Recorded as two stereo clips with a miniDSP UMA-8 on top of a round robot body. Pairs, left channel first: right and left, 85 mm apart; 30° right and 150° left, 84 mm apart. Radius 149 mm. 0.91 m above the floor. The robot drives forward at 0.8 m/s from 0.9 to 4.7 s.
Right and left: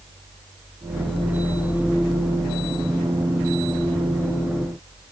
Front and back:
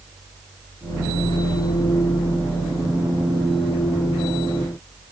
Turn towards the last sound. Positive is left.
No sound to turn to.